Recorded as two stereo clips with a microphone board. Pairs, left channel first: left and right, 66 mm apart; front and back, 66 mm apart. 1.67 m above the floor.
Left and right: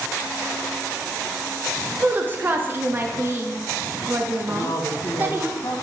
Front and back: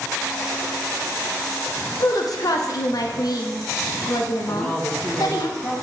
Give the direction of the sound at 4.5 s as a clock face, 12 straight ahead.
10 o'clock.